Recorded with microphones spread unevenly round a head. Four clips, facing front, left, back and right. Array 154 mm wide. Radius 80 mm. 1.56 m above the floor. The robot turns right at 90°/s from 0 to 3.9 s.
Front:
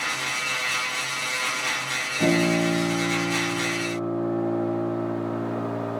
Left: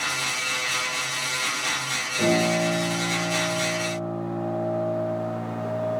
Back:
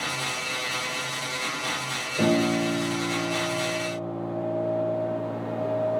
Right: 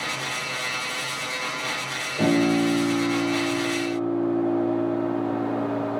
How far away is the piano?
About 4.5 m.